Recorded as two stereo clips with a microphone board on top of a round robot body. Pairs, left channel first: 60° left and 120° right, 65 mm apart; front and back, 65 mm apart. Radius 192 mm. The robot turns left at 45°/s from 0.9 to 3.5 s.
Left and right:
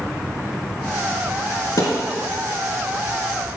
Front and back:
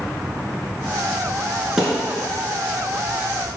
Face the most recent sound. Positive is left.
turn(degrees=20)